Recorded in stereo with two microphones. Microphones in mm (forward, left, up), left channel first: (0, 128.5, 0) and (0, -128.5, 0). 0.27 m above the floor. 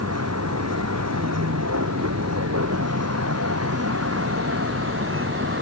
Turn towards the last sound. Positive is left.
turn(degrees=-50)  # may be behind; listen again after turning